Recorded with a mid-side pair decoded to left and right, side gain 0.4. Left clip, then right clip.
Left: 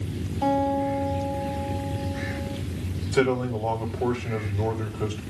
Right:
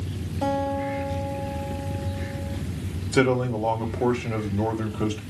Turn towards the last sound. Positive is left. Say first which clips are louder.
# right 2 dB
turn(degrees=-50)